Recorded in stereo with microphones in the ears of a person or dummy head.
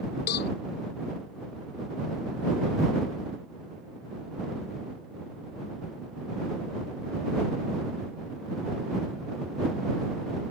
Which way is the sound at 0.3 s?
55° left (ahead or behind).